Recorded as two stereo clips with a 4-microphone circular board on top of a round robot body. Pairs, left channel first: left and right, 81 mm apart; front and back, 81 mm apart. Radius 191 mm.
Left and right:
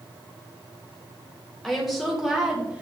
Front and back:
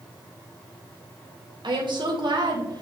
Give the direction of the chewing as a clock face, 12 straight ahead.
No chewing in this recording.